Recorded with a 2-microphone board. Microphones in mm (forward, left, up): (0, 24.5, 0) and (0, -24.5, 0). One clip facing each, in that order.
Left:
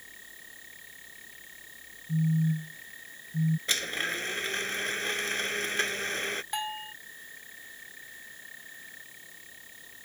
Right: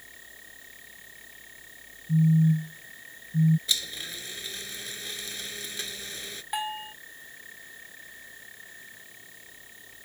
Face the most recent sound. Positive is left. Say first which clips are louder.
# right 2 dB
turn(degrees=-10)  # may be behind; listen again after turning